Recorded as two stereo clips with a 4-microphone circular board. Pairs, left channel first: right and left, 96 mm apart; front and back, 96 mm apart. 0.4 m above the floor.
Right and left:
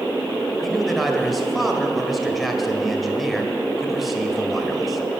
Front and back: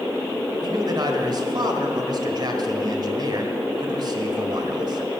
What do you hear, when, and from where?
0.6 s a man speaking: straight behind, 1.6 m